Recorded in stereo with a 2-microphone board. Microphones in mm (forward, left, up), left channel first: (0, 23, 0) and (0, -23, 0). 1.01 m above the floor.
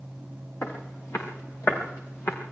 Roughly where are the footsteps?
Left.